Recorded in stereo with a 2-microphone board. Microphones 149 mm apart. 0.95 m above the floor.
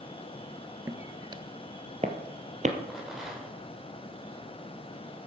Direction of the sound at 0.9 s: 15° right (ahead or behind).